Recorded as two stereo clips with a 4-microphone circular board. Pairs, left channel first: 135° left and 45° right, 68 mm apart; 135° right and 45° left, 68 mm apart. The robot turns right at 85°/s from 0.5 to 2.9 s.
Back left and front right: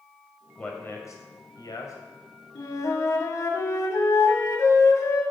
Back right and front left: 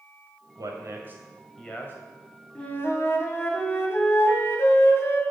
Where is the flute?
150° left, 1.6 m; by 5.2 s straight behind, 1.6 m.